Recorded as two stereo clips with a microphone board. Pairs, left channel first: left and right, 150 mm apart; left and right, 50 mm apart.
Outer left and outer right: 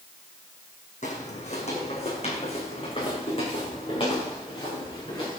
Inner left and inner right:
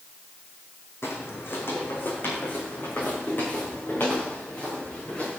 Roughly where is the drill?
I don't hear a drill.